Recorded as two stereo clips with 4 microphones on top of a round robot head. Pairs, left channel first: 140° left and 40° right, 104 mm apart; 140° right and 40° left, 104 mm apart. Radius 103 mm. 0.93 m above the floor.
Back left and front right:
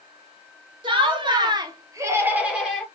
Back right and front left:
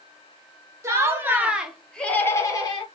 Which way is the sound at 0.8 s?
15° right.